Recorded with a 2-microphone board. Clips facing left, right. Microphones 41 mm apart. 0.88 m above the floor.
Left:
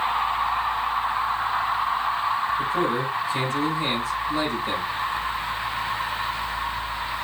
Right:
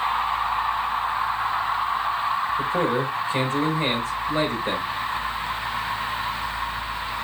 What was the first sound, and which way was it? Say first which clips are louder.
A man speaking: right 1 dB; 45° right (ahead or behind).